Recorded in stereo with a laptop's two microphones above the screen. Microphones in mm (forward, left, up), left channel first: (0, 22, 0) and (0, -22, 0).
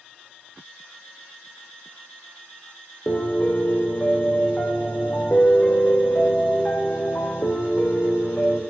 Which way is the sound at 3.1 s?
40° left (ahead or behind).